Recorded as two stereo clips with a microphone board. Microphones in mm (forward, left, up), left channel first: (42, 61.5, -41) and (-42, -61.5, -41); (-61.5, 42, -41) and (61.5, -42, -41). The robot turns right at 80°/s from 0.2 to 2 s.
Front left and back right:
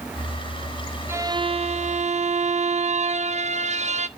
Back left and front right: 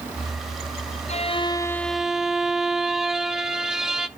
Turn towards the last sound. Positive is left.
turn(degrees=-120)